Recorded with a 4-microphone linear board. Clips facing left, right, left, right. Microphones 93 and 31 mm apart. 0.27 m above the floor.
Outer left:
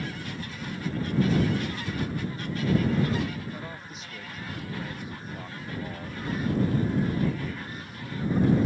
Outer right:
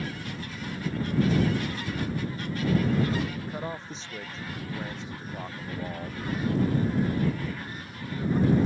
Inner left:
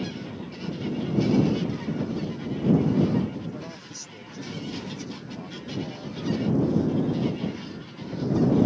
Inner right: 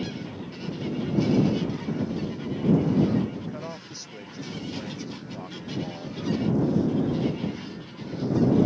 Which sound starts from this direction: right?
A man speaking, at 3.4 s.